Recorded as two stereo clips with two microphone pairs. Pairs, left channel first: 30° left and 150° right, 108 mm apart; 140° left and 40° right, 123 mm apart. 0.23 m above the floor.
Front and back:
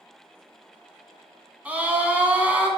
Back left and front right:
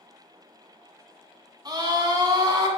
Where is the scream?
80° right, 2 m.